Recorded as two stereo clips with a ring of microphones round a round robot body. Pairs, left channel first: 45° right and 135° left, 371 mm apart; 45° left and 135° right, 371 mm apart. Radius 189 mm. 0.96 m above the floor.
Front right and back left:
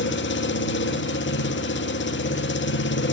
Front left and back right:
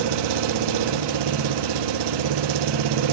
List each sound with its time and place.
0.0 s an engine running: 110° right, 1.5 m